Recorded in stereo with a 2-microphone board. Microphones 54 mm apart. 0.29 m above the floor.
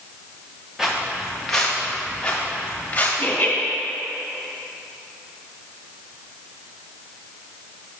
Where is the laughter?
35° left (ahead or behind), 1.6 m.